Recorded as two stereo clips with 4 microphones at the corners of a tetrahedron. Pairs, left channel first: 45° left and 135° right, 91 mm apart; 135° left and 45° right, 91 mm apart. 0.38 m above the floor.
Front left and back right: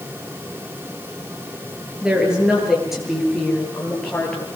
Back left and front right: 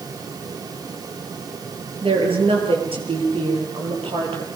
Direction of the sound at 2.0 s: 55° right.